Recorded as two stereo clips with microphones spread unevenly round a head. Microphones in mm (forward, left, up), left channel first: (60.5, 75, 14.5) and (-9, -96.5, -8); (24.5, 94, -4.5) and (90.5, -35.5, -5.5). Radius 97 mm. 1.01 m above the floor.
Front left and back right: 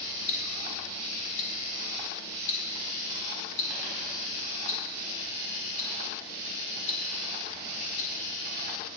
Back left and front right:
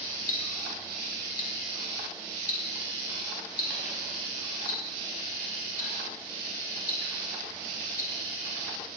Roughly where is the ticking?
Left.